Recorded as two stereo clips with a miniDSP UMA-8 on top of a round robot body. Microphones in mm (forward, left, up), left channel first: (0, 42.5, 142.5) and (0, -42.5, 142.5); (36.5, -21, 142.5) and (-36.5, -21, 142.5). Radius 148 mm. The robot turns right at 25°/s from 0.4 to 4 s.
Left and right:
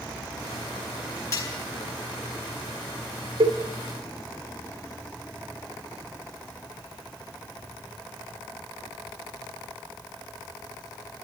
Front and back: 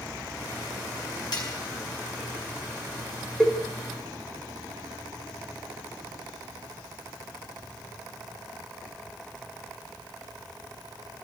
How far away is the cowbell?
About 3.5 m.